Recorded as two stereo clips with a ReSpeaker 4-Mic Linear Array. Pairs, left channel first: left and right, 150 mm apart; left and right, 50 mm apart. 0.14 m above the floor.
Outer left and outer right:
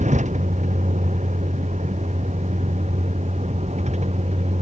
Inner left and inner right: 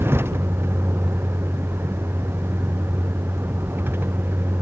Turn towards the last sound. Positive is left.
turn(degrees=-50)  # may be behind; listen again after turning